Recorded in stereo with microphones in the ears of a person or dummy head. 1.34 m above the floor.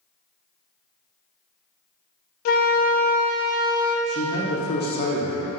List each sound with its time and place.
2.5 s a flute: 55° left (ahead or behind), 0.5 m
4.1 s a man speaking: 45° left (ahead or behind), 0.7 m